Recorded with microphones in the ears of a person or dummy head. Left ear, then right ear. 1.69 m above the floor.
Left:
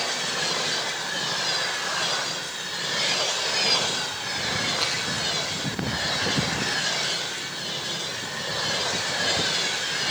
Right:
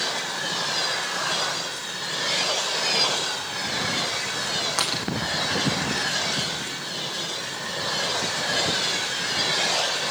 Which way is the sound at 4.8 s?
75° right (ahead or behind).